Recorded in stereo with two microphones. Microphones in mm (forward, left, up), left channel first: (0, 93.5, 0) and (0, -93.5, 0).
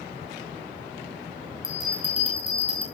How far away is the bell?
About 6 m.